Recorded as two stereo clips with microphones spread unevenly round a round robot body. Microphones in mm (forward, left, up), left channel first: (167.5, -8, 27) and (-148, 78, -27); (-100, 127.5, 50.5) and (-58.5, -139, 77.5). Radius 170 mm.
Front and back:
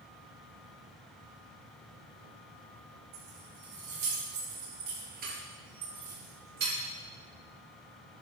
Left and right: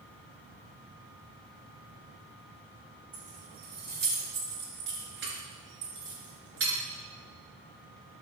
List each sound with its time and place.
3.1 s keys jangling: 140° right, 6 m; by 6.7 s 120° right, 5.5 m